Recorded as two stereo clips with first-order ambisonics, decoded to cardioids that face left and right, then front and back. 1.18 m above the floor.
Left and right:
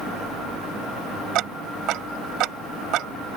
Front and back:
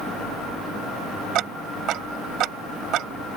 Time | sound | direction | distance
1.4 | ticking | 135° right | ?